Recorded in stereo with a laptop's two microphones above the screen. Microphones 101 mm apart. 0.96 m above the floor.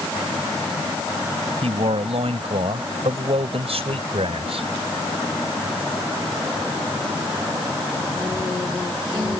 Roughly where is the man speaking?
Right.